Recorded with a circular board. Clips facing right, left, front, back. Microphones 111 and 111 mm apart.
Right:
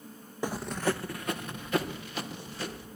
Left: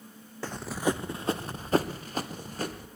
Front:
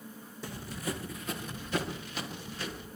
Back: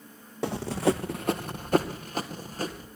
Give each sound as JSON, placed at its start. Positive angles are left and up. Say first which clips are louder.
{"t": 0.4, "sound": "running footsteps", "louder": "even, back 13 dB", "azimuth_deg": -165, "distance_m": 0.8}